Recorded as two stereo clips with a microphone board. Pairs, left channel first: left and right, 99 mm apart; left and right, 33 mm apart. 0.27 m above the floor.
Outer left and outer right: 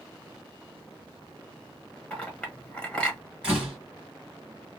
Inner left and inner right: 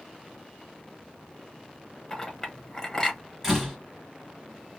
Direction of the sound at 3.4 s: 10° right (ahead or behind).